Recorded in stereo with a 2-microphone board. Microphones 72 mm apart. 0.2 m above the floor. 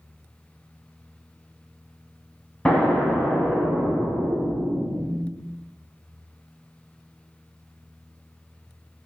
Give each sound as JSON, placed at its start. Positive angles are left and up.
{"t": 2.6, "sound": "an explosion", "side_deg": 10, "distance_m": 0.6}